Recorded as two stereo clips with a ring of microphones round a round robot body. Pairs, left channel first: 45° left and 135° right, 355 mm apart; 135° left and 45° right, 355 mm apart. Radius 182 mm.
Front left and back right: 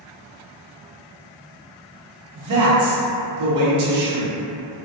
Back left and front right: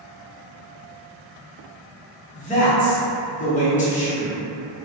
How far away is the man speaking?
About 0.8 m.